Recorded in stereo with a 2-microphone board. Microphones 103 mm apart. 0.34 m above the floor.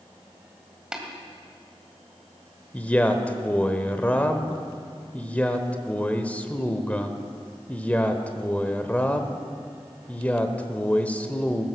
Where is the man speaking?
15° left (ahead or behind), 1.0 m.